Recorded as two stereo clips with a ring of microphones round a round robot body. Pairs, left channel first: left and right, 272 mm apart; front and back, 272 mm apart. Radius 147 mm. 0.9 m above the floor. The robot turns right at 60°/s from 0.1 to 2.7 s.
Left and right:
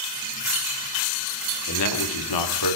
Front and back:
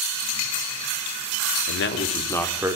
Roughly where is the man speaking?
Ahead left.